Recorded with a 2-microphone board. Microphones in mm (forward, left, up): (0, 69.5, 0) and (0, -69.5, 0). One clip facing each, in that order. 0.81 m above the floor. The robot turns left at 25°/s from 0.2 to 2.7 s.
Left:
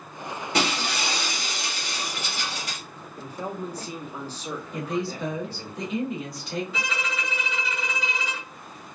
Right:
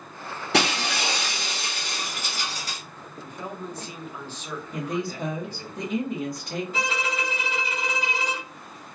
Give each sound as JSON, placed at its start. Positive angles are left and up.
{"t": 0.5, "sound": "breaking glass", "azimuth_deg": -95, "distance_m": 1.0}
{"t": 3.2, "sound": "a man speaking", "side_deg": 35, "distance_m": 0.8}
{"t": 4.7, "sound": "a woman speaking", "side_deg": -50, "distance_m": 1.1}
{"t": 6.7, "sound": "a violin", "side_deg": -50, "distance_m": 2.0}